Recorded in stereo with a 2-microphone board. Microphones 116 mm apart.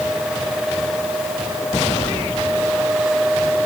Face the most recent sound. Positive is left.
No sound to turn to.